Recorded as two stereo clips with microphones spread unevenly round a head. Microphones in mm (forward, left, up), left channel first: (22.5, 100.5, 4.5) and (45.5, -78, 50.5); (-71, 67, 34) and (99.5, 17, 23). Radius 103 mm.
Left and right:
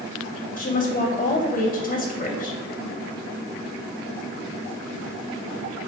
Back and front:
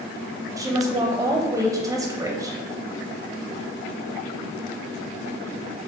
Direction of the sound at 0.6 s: 55° left.